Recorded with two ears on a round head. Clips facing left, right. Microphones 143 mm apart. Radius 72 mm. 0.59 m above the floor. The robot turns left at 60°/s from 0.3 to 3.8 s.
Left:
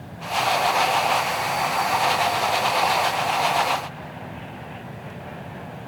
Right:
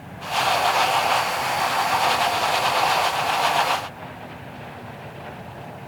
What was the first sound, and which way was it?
Only background noise.